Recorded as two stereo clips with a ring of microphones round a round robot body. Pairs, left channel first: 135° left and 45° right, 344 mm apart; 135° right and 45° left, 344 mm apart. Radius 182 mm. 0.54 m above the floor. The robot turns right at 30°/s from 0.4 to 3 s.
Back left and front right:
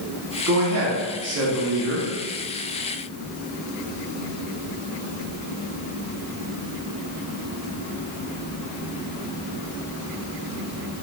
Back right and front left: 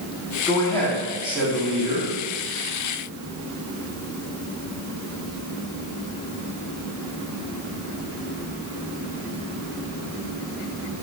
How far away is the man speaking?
About 1.1 m.